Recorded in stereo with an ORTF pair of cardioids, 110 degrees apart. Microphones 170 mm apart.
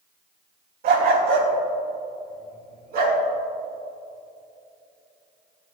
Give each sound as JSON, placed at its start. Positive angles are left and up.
{"t": 0.8, "sound": "a dog barking", "azimuth_deg": -65, "distance_m": 4.0}